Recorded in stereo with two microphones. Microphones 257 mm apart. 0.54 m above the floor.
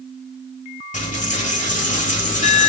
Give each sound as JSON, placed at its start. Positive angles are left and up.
{"t": 0.9, "sound": "a dropped coin", "side_deg": 30, "distance_m": 1.1}